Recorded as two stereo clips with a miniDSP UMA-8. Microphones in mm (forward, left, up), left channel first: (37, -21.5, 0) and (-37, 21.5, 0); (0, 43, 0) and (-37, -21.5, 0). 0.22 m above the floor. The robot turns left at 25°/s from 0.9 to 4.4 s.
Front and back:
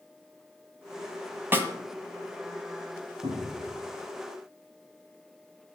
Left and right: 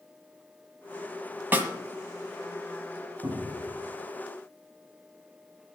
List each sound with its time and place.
1.5 s a snare drum: 160° right, 1.5 m; by 1.7 s 165° right, 1.5 m
3.2 s a cupboard door: 175° right, 6 m; by 3.7 s 175° left, 6 m